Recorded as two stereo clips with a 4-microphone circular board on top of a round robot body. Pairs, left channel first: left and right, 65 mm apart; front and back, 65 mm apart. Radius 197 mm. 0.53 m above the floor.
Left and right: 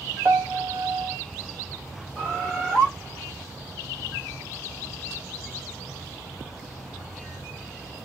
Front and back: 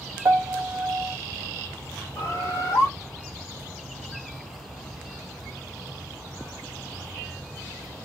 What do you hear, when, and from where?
0.2 s a piano: 135° right, 0.7 m
2.1 s a bird: 30° left, 3 m